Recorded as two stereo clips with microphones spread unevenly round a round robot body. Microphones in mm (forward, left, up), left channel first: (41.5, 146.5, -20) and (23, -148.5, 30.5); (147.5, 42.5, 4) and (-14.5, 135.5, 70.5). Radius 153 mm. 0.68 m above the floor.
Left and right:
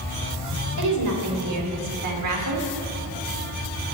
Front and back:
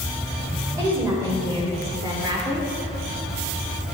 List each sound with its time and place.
0.8 s a woman speaking: 125° right, 3.5 m; by 2.7 s 130° right, 2 m